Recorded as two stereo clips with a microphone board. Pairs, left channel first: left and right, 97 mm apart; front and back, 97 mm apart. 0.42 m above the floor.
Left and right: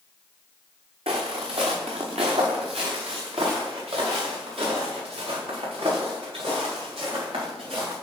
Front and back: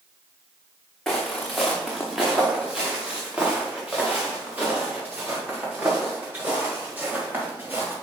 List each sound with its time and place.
1.1 s footsteps: 85° right, 2.5 m; by 7.9 s 110° right, 6 m